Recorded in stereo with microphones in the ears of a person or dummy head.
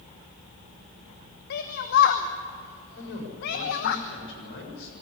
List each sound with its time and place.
1.5 s a shout: 50° left (ahead or behind), 1.0 m
3.0 s a man speaking: 85° left, 7 m